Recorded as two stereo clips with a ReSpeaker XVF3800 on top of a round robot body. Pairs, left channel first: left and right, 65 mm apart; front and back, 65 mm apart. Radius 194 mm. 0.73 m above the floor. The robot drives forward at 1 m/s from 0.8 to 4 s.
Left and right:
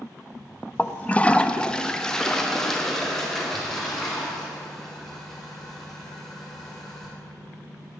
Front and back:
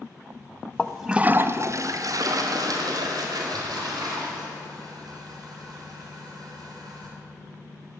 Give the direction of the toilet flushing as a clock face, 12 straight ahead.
10 o'clock.